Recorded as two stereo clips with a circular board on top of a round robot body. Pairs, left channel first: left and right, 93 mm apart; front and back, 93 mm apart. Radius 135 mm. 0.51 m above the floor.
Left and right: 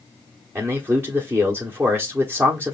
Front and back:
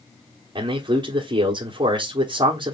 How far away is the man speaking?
About 1.3 m.